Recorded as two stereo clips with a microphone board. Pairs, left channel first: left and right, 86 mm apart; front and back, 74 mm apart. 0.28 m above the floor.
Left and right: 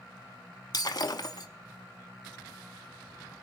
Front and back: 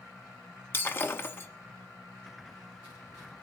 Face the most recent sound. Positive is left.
turn(degrees=55)